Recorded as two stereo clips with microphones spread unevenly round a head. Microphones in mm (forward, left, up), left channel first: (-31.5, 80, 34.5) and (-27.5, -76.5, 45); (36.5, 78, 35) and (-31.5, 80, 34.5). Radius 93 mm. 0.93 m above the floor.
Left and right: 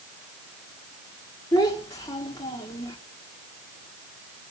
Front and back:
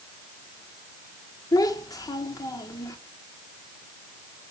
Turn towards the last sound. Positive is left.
turn(degrees=25)